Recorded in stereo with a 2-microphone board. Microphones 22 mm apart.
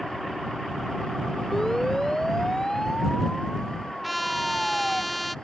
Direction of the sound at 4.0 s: 5° left (ahead or behind).